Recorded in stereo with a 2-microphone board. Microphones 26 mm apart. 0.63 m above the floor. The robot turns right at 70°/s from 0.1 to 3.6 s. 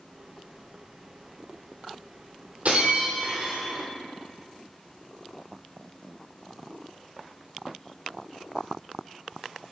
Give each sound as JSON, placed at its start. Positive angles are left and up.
{"t": 2.6, "sound": "breaking glass", "azimuth_deg": -120, "distance_m": 3.0}